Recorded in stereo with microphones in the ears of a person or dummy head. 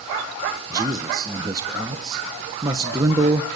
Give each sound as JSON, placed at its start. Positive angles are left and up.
{"t": 0.7, "sound": "a man speaking", "side_deg": -15, "distance_m": 1.0}